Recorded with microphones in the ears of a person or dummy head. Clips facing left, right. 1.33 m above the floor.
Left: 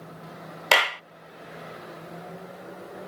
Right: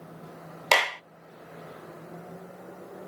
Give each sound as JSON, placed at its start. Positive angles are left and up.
{"t": 0.7, "sound": "a clap", "side_deg": 5}